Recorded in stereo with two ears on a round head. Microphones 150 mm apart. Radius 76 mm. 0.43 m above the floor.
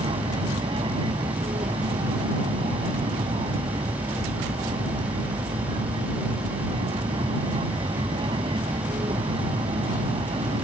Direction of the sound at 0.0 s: 30° right (ahead or behind).